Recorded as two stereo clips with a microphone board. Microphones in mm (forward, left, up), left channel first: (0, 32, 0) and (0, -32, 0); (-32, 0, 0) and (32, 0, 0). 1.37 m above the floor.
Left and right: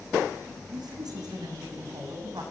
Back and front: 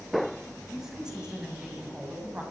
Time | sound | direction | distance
0.7 | a woman speaking | 85° right | 7.5 m